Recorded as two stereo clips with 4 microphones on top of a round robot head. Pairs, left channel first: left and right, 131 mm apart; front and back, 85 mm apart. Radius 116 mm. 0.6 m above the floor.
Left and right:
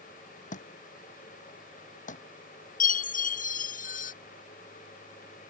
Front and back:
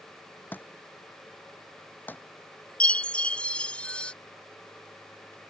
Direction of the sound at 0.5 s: 70° left.